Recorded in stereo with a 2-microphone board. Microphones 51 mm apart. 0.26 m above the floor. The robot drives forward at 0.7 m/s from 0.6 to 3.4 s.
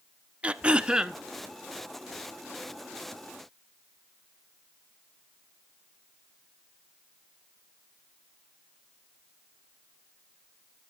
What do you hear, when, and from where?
0.4 s throat clearing: 30° right (ahead or behind), 0.7 m; by 1.2 s 20° right (ahead or behind), 1.0 m